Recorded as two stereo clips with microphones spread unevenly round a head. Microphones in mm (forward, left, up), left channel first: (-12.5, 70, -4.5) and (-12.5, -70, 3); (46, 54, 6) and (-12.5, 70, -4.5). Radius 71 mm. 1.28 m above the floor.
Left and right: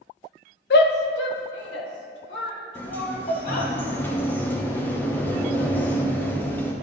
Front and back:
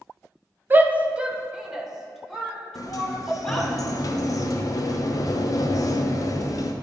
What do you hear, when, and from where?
0.7 s a shout: 105° left, 0.8 m; by 3.7 s 70° left, 3 m
2.8 s a sliding door: 15° left, 0.8 m